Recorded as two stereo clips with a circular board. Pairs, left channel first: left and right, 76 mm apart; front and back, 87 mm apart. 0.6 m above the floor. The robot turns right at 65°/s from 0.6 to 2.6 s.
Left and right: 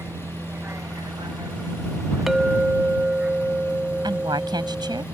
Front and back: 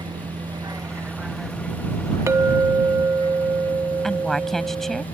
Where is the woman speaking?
85° right.